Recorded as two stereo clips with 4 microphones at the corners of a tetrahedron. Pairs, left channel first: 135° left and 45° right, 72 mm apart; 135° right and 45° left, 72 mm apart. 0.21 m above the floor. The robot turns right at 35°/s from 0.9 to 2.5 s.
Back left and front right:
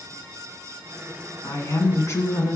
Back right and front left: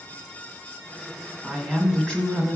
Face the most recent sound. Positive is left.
turn(degrees=170)